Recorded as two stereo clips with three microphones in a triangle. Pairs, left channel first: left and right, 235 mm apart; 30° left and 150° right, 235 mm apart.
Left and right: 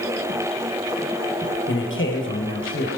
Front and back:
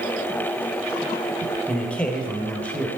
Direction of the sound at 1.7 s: 115° left.